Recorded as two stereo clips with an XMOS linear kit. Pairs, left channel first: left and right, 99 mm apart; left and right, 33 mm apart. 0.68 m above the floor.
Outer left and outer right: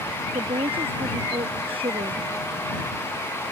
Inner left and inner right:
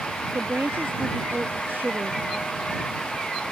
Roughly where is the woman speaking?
Right.